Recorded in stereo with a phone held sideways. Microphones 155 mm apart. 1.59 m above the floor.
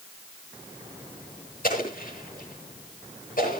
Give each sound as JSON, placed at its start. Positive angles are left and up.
{"t": 1.6, "sound": "an explosion", "side_deg": 65, "distance_m": 8.0}